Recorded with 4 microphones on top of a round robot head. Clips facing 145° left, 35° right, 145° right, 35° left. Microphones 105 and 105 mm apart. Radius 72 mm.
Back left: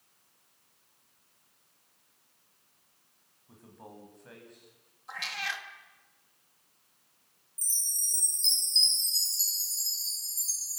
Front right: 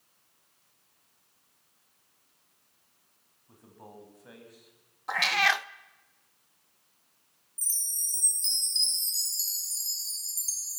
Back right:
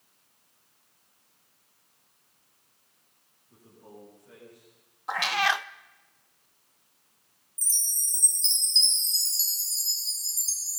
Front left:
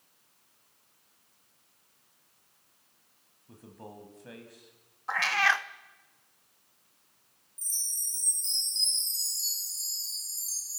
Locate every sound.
3.5 s a man speaking: 55° left, 6.5 m; by 4.7 s 45° left, 6.5 m
5.1 s a cat meowing: 70° right, 0.6 m
7.6 s a chime: 120° right, 6 m